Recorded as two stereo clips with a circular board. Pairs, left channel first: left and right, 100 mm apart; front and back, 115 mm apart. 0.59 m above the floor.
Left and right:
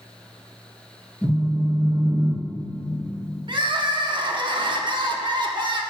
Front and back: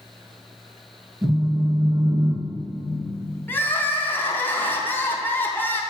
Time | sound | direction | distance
1.2 | a phone buzzing | 155° right | 2 m
3.5 | crying | 70° right | 0.6 m